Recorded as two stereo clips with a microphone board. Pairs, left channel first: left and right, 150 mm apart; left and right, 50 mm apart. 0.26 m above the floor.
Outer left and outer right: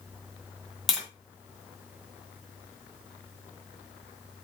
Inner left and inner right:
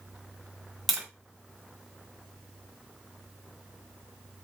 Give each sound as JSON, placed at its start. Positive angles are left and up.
{"t": 0.9, "sound": "tapping", "side_deg": 0, "distance_m": 1.9}